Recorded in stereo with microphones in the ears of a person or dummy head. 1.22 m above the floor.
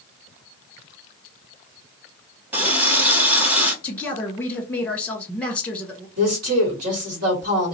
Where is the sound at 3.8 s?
5° left (ahead or behind), 1.0 m.